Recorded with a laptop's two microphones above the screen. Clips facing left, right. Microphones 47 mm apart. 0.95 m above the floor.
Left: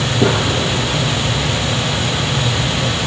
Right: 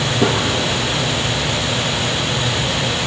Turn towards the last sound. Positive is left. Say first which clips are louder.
# left 2 dB
turn(degrees=0)  # may be behind; listen again after turning